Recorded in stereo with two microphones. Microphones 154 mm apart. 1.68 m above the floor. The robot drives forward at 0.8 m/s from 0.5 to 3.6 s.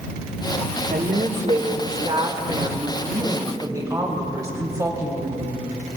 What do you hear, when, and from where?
0.9 s a woman speaking: 55° right (ahead or behind), 1.5 m; by 5.6 s 20° right (ahead or behind), 3 m